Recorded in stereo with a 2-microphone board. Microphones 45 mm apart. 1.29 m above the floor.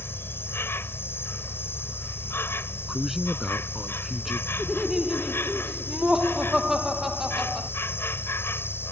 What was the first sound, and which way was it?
An insect, 60° left (ahead or behind).